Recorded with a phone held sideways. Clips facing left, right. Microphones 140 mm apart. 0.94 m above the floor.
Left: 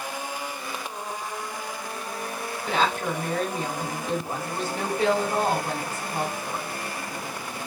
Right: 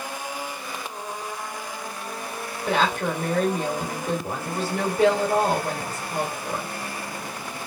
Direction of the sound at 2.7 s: 65° right (ahead or behind).